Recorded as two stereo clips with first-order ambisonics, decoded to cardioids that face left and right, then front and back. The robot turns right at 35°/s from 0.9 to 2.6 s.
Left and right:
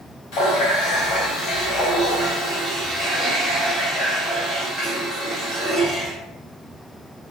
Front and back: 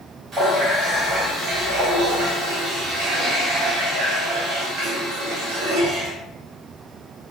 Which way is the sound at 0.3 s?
115° left.